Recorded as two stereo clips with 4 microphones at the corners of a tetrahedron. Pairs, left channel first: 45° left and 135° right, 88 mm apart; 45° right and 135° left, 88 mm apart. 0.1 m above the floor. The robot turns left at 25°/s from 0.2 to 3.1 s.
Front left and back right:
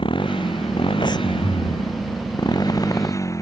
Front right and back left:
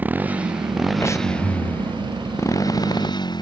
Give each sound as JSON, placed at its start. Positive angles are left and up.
{"t": 0.0, "sound": "a motorcycle", "azimuth_deg": 65}
{"t": 1.0, "sound": "breathing", "azimuth_deg": 15}